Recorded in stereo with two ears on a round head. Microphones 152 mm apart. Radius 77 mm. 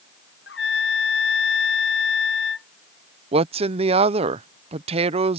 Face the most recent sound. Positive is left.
turn(degrees=-35)  # may be behind; listen again after turning